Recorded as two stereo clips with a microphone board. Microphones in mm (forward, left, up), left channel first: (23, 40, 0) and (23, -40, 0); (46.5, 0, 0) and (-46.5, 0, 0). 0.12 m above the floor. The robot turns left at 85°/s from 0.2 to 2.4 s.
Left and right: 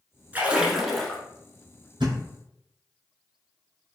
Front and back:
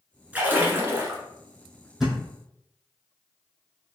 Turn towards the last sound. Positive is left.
turn(degrees=-125)